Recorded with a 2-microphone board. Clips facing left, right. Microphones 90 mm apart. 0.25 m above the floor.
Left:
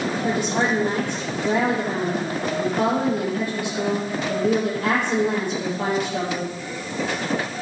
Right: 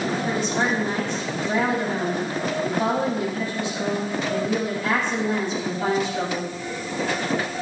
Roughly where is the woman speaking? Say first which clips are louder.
Left 3 dB; left.